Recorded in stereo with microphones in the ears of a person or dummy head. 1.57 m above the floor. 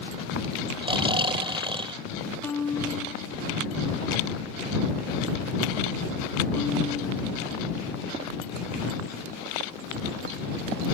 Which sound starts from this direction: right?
Snoring, at 0.8 s.